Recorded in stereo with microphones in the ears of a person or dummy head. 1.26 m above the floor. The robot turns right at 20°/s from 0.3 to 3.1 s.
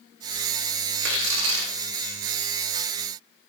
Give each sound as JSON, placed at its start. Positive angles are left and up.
{"t": 1.0, "sound": "tearing paper", "side_deg": -65, "distance_m": 0.7}